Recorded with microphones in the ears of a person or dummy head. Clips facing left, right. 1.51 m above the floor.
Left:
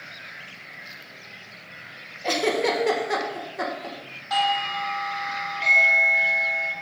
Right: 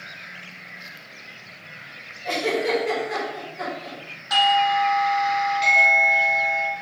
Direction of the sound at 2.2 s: 75° left (ahead or behind).